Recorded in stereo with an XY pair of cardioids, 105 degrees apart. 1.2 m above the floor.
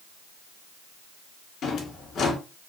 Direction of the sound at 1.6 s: 65° left.